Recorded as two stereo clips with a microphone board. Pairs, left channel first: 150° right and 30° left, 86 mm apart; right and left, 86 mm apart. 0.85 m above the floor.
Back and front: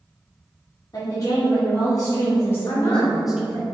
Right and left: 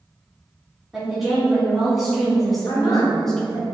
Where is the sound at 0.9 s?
175° left, 1.8 m; by 3.7 s 20° right, 0.8 m.